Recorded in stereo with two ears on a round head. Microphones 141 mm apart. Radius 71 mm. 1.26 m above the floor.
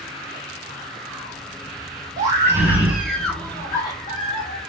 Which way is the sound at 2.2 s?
25° right (ahead or behind).